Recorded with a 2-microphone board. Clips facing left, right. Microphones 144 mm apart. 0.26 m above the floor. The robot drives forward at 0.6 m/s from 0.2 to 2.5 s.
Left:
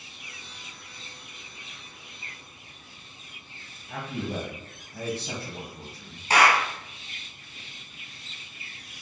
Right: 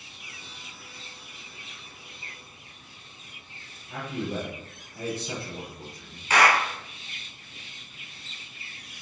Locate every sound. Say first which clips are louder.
3.9 s a man speaking: right 1 dB; 50° left (ahead or behind), 1.5 m
6.3 s a clap: even; 35° left (ahead or behind), 1.6 m